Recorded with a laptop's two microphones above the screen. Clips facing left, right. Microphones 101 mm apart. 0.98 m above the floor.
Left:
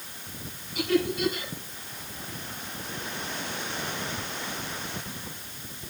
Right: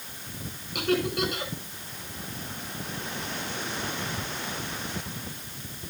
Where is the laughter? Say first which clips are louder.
Left 1 dB; 75° right (ahead or behind), 5 m.